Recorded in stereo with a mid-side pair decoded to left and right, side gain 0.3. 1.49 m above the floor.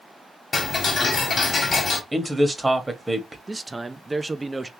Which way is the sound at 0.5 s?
55° left.